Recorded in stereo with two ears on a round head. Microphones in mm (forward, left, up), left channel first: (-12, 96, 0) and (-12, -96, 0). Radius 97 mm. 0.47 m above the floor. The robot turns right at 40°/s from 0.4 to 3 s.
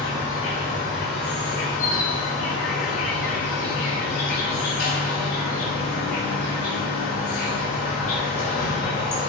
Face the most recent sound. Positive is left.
turn(degrees=130)